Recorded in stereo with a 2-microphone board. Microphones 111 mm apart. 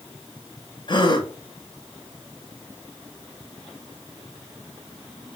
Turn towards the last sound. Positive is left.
turn(degrees=45)  # may be behind; listen again after turning